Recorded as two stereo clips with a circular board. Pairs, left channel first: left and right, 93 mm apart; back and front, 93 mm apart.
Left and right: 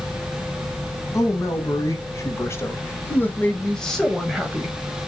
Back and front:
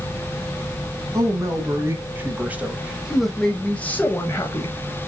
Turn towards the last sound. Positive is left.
turn(degrees=-165)